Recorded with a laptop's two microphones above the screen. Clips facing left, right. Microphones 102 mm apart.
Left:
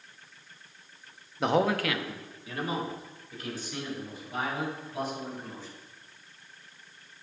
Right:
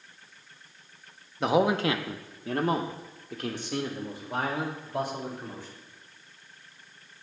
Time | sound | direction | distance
1.4 | a man speaking | 5° left (ahead or behind) | 0.7 m